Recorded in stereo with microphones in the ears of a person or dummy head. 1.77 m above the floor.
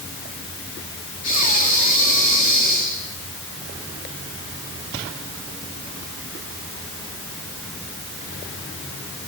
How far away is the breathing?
About 4 m.